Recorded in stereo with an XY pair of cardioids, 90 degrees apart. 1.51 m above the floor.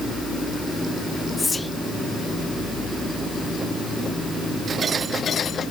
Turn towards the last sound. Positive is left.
turn(degrees=25)